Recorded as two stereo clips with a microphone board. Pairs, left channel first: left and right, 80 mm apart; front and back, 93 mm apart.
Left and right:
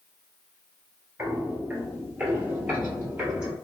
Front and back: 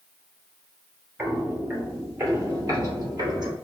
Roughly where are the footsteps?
Behind right.